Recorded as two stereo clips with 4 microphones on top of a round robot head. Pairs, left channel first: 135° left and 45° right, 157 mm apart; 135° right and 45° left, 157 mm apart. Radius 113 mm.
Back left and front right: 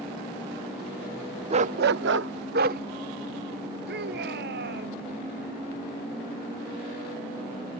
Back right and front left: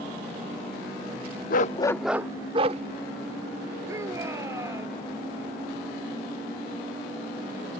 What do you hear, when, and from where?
1.5 s a dog barking: 100° right; by 2.8 s 10° right
3.9 s a shout: 30° right